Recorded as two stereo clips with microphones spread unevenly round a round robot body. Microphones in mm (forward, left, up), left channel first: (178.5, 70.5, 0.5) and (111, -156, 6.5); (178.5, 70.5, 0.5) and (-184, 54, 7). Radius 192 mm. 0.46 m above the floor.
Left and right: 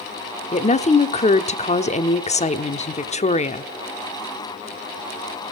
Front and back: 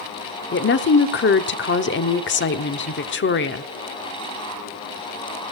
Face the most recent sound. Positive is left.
turn(degrees=35)